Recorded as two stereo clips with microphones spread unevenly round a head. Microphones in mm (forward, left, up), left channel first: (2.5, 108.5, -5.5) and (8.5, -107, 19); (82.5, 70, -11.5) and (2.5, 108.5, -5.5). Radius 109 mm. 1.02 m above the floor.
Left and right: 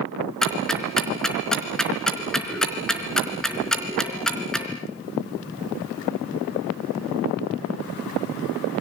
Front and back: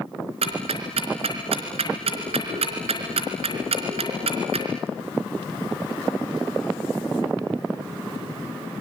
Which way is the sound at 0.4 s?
Straight behind.